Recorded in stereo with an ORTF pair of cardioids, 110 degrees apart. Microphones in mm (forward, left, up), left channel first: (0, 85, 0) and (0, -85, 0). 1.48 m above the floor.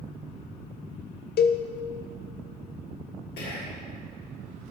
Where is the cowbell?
60° left, 0.7 m.